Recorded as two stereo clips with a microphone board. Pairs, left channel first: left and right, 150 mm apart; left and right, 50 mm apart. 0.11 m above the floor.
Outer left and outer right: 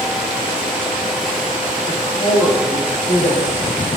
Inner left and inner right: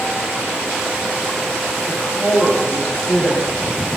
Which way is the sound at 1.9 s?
55° left (ahead or behind).